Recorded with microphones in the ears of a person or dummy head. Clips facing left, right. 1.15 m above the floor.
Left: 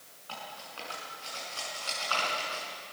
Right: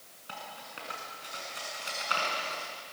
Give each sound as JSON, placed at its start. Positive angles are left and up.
{"t": 0.3, "sound": "cutlery clinking", "side_deg": -35, "distance_m": 6.0}